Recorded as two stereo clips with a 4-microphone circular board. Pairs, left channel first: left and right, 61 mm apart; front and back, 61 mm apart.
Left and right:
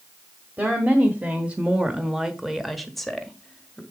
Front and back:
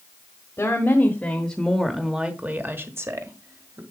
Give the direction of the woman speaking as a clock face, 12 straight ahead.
1 o'clock.